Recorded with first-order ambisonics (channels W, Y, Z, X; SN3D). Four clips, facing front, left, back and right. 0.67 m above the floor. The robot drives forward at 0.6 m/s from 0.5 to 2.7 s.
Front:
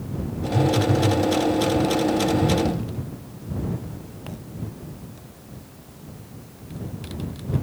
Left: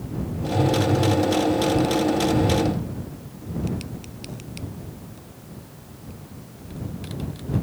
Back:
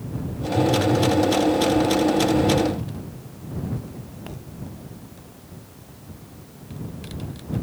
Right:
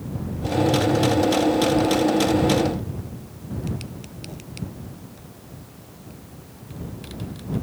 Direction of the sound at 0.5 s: Straight ahead.